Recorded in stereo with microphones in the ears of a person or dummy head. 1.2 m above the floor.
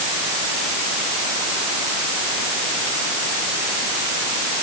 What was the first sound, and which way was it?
Only background noise.